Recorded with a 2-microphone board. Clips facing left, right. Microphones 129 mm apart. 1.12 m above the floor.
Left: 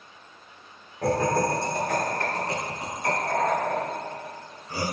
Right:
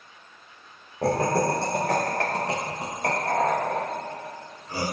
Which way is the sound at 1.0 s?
30° right (ahead or behind).